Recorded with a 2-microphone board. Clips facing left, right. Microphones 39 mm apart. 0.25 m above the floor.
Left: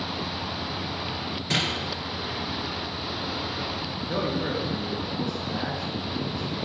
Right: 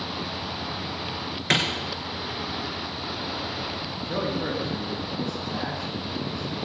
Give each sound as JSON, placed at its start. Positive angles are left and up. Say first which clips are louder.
{"t": 1.5, "sound": "a clap", "louder": "right 4 dB", "side_deg": -70, "distance_m": 4.0}
{"t": 4.0, "sound": "a man speaking", "louder": "even", "side_deg": 5, "distance_m": 4.5}